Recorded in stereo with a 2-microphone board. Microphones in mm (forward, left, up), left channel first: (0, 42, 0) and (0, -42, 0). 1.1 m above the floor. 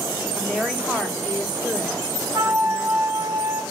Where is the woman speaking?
5° right (ahead or behind), 1.4 m.